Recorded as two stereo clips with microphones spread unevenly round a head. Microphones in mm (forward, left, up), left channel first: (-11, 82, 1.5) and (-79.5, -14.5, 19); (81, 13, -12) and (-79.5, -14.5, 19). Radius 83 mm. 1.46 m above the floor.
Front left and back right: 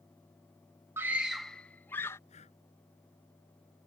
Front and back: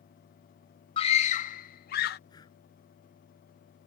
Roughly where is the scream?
Ahead right.